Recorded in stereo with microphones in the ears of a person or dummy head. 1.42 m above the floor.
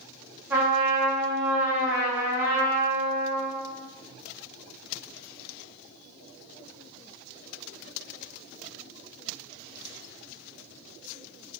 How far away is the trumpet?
About 1.1 m.